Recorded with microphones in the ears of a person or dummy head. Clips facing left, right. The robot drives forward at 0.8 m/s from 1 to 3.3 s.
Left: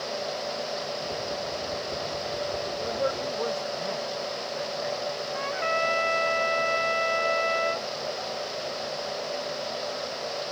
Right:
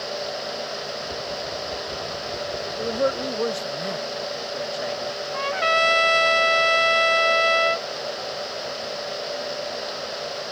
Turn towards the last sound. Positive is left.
turn(degrees=-55)  # may be behind; listen again after turning